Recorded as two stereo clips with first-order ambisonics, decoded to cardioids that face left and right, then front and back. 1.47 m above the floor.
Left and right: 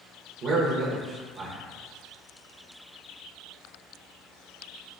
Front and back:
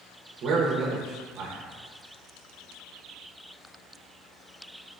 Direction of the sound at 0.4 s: 135° right.